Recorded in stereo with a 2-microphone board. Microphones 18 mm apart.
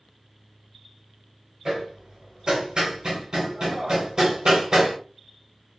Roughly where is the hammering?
Right.